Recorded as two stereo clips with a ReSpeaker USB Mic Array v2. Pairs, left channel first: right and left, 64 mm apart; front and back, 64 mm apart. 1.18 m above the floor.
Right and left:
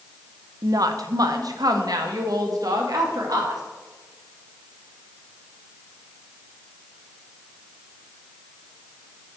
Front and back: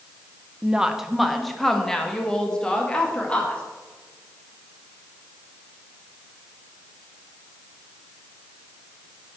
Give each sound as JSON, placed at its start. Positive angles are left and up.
{"t": 0.6, "sound": "a woman speaking", "azimuth_deg": 105, "distance_m": 0.8}